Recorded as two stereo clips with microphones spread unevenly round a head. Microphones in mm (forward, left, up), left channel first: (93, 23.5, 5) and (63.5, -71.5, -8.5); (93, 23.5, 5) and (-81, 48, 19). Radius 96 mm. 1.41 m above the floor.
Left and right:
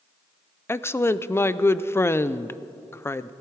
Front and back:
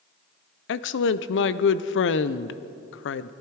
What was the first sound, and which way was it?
A woman speaking, 5° left.